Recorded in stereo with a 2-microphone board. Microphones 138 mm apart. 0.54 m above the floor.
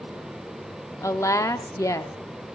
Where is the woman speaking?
20° left (ahead or behind), 0.7 m.